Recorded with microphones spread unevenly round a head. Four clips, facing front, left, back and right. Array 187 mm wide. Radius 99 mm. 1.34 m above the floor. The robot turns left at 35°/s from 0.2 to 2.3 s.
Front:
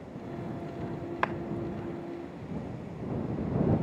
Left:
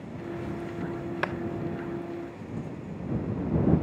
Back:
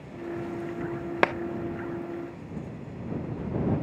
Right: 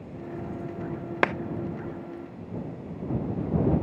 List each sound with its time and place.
1.2 s a clap: 145° right